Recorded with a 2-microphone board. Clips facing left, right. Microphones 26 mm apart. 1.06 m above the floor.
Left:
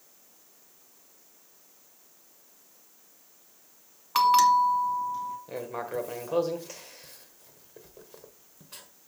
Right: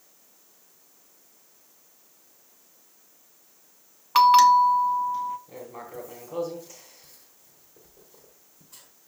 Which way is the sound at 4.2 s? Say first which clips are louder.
Right 5 dB; 20° right (ahead or behind).